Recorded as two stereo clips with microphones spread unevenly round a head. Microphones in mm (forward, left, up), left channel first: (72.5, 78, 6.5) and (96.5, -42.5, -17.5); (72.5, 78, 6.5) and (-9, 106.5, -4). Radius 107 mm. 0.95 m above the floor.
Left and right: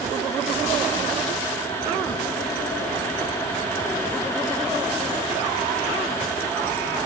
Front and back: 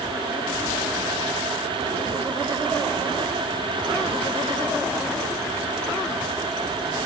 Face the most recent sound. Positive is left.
No sound to turn to.